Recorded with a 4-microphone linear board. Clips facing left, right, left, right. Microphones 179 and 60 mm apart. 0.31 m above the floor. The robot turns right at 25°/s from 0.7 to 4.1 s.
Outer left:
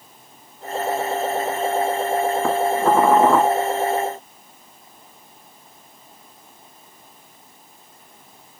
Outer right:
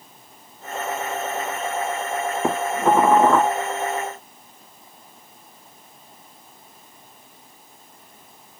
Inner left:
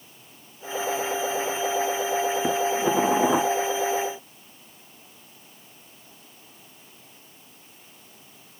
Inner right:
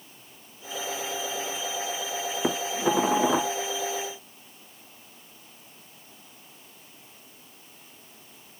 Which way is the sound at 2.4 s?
15° right (ahead or behind).